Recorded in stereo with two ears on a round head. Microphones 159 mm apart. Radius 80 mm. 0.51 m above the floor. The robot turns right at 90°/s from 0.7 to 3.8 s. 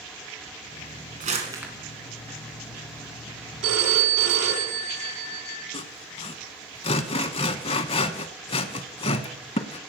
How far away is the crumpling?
About 2 m.